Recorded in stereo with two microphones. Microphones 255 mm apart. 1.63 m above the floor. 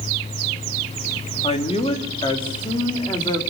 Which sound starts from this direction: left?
A man speaking, at 1.4 s.